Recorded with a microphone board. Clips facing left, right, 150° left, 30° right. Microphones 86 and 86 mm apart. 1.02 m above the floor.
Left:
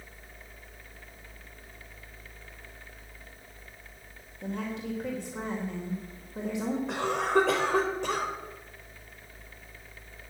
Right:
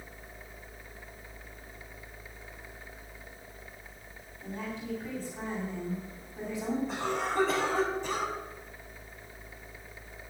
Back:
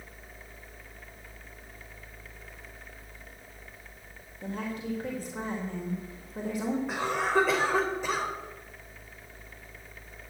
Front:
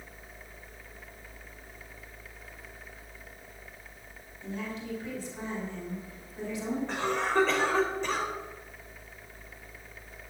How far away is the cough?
About 3.5 m.